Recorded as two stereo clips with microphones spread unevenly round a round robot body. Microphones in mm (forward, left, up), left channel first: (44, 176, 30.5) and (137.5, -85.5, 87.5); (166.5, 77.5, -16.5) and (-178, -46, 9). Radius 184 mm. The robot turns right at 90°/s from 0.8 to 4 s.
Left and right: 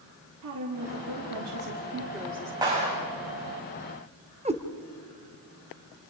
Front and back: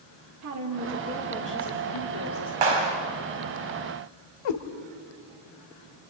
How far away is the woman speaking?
About 2 m.